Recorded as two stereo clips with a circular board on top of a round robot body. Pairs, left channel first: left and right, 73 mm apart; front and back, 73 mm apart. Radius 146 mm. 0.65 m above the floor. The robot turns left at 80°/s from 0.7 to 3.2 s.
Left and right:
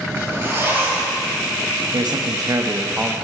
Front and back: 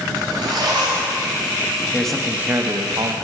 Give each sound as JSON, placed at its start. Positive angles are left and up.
{"t": 0.1, "sound": "a zipper", "azimuth_deg": -150, "distance_m": 3.0}
{"t": 1.9, "sound": "a man speaking", "azimuth_deg": -75, "distance_m": 1.0}